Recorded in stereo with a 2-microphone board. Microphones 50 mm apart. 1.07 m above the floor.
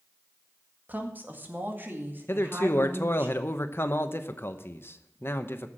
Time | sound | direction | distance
0.9 | a woman speaking | 35° right (ahead or behind) | 1.8 m
2.3 | a man speaking | 50° left (ahead or behind) | 0.9 m